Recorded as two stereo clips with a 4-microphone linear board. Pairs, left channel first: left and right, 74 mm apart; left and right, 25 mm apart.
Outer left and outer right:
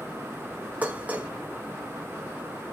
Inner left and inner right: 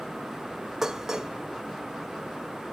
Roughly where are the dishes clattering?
Right.